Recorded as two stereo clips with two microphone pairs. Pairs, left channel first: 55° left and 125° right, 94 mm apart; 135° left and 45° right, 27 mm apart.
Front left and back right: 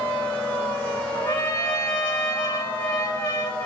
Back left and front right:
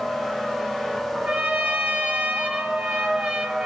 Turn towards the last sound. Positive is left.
turn(degrees=-5)